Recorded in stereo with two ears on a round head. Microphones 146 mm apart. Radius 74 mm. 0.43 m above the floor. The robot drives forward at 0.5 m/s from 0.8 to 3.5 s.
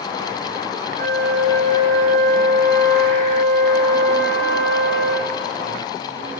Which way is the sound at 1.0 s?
60° right (ahead or behind).